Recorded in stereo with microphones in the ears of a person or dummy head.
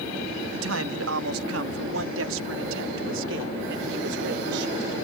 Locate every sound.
0.5 s a man speaking: 80° right; by 4.9 s 65° right (ahead or behind)